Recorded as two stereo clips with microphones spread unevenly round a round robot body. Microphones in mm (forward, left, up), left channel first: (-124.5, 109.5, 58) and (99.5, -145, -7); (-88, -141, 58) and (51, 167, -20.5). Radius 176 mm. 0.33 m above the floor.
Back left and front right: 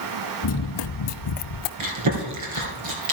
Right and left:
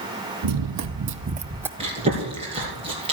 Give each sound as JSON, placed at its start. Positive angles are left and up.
{"t": 0.4, "sound": "running footsteps", "azimuth_deg": 95, "distance_m": 1.0}
{"t": 1.8, "sound": "chewing", "azimuth_deg": -10, "distance_m": 3.5}